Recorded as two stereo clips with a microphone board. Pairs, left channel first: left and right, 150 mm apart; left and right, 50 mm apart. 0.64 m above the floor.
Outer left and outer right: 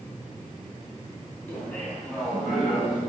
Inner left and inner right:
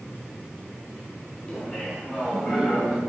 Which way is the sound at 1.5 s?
15° left (ahead or behind).